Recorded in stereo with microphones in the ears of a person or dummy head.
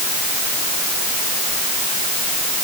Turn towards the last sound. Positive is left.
No sound to turn to.